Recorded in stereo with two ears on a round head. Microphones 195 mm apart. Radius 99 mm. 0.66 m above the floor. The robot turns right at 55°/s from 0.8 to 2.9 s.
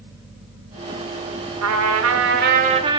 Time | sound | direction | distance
1.6 | a trumpet | 90° right | 1.4 m